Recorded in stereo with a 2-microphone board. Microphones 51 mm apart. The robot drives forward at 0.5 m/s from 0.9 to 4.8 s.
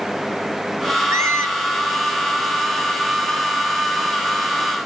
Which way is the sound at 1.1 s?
65° right (ahead or behind).